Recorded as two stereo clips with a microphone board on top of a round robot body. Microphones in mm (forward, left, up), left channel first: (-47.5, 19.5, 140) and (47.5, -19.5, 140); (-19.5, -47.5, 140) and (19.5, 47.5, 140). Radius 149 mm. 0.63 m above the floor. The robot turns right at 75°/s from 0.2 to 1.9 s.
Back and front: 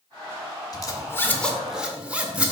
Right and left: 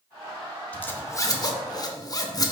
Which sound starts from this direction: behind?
A zipper, at 0.7 s.